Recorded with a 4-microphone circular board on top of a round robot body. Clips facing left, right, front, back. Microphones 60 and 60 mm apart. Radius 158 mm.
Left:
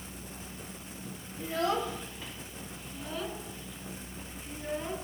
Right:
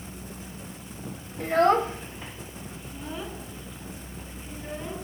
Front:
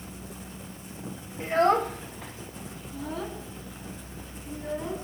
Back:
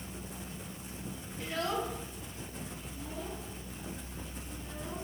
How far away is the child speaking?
About 1.3 m.